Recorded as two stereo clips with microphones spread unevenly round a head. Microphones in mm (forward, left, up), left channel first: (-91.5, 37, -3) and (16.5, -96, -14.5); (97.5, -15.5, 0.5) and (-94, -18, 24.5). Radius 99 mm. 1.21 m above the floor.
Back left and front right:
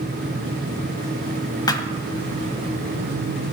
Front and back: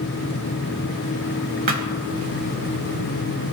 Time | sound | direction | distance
1.7 | a thud | 175° right | 1.4 m